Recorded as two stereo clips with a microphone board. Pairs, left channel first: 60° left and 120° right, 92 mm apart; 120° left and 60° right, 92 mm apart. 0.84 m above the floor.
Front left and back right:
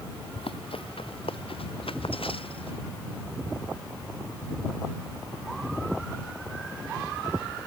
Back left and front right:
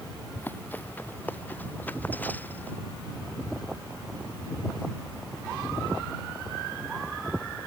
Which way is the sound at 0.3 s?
50° left.